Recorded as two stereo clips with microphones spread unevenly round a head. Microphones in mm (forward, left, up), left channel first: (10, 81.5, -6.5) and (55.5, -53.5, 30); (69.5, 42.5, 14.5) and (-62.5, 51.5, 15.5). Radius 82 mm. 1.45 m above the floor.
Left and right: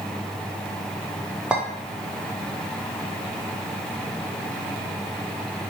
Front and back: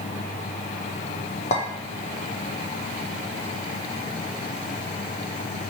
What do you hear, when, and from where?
1.5 s a clink: 5° right, 0.7 m